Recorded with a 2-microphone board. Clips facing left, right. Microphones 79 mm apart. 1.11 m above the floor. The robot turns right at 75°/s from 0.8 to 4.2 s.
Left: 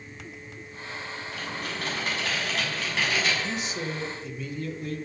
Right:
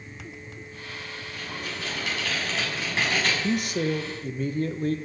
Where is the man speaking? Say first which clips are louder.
Right 6 dB; 110° right, 1.2 m; by 5.0 s 50° right, 1.2 m.